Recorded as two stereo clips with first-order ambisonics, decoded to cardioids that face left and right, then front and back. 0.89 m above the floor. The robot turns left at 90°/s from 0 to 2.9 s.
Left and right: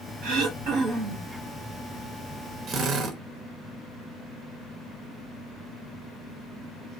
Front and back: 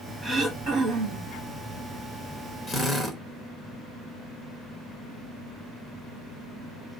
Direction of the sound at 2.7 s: 55° right.